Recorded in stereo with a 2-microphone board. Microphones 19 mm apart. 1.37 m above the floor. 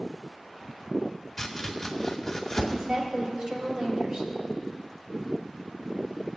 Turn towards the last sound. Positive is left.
turn(degrees=-50)  # may be behind; listen again after turning